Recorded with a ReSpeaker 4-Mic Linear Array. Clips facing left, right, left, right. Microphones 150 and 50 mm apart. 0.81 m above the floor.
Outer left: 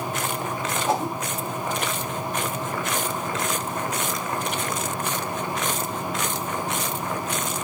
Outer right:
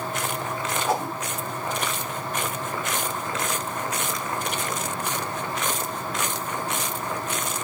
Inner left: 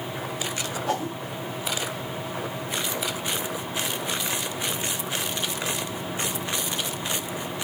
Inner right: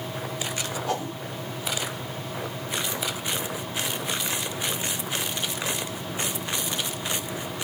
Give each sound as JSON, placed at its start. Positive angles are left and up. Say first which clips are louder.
{"t": 0.9, "sound": "a whoosh", "louder": "outer left 2 dB, inner left 3 dB", "side_deg": 20, "distance_m": 1.7}